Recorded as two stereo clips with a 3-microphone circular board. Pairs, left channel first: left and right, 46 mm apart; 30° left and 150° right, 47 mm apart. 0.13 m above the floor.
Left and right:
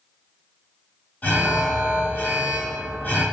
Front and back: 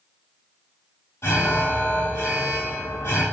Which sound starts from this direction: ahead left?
An alarm, at 1.2 s.